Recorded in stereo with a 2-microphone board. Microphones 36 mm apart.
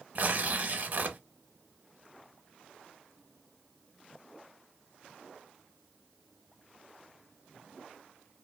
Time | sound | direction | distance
0.1 | tearing paper | 50° right (ahead or behind) | 0.6 m